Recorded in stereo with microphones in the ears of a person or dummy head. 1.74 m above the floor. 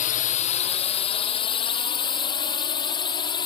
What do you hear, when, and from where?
0.0 s a drone: 45° left (ahead or behind); by 3.5 s 25° left (ahead or behind)